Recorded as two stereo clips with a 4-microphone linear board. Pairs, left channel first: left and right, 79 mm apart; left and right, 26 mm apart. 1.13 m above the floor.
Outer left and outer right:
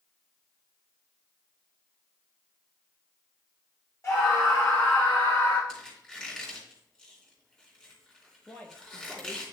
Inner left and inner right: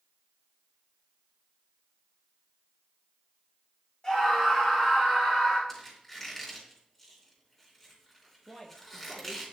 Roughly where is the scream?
Left.